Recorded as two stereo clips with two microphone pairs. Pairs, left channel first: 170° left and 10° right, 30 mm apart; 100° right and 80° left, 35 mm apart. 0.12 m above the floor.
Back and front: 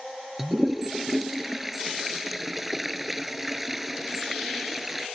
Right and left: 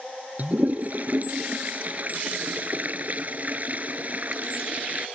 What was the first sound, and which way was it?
A toilet flushing, 75° left.